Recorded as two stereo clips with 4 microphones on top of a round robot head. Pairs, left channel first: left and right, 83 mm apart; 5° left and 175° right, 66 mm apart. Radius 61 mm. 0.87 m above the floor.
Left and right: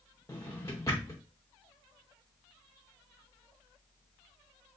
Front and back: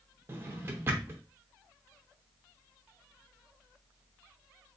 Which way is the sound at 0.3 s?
145° left.